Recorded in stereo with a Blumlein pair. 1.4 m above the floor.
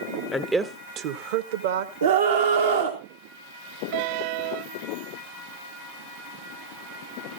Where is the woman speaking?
10° left, 0.7 m; by 2.9 s 70° right, 2.5 m.